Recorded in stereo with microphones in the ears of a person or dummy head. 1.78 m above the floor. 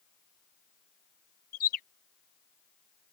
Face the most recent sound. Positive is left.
turn(degrees=55)  # may be behind; listen again after turning